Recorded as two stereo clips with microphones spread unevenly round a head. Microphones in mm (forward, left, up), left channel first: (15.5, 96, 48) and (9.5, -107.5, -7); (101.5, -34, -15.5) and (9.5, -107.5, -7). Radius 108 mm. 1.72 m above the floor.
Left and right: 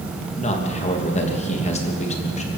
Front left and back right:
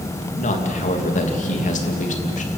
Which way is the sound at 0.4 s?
30° left.